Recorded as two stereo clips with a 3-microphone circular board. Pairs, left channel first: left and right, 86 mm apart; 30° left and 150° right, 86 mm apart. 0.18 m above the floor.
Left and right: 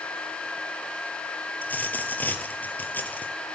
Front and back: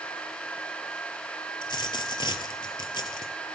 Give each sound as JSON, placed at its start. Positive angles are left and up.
{"t": 1.6, "sound": "a dropped coin", "azimuth_deg": 25, "distance_m": 0.8}